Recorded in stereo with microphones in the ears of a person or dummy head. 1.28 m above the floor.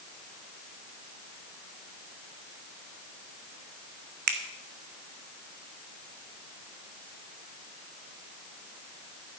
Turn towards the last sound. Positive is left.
turn(degrees=-45)  # may be behind; listen again after turning